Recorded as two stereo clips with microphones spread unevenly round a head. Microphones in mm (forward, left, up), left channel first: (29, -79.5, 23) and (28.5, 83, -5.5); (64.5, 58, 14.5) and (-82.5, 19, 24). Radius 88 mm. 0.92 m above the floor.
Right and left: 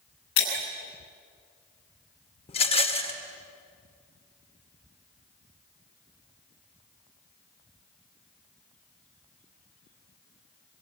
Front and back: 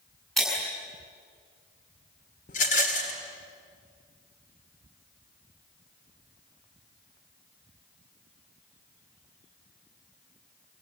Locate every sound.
0.4 s breaking glass: 75° right, 6.5 m
2.5 s a rattle: 35° right, 2 m